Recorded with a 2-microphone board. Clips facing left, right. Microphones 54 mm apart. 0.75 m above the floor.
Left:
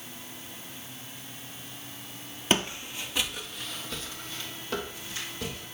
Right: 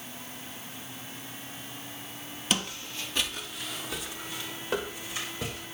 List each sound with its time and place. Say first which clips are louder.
2.5 s footsteps: left 4 dB; 30° left (ahead or behind), 0.9 m; by 5.7 s 20° right (ahead or behind), 3 m